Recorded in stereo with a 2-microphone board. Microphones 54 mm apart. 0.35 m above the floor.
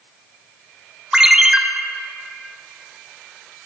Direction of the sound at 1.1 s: 15° right (ahead or behind).